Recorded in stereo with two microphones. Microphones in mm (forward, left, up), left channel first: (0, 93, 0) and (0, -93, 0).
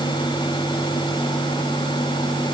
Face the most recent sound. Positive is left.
No sound to turn to.